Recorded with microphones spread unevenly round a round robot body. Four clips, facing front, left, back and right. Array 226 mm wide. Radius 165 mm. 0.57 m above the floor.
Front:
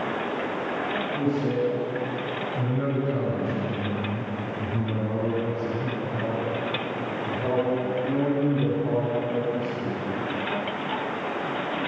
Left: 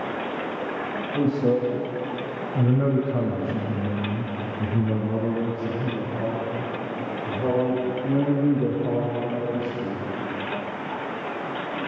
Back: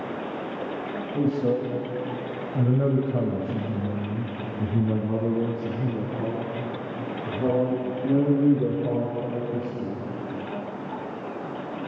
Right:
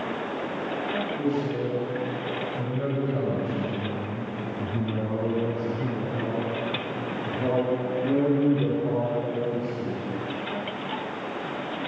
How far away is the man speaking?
About 3.5 m.